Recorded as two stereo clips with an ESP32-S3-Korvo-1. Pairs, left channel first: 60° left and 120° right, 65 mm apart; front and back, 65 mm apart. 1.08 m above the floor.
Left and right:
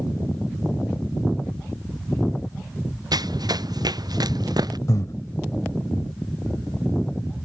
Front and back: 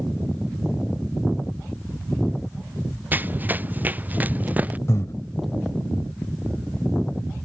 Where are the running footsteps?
120° right; by 4.8 s 115° right.